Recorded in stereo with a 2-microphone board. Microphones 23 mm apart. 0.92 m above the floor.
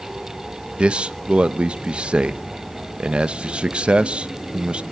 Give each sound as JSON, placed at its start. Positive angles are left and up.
{"t": 0.8, "sound": "a man speaking", "side_deg": -50, "distance_m": 0.7}